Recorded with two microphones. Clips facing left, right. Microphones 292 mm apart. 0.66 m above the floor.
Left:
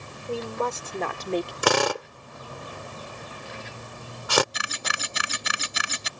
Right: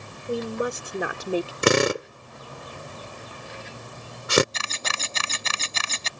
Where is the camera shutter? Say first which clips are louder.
Even; 15° left (ahead or behind).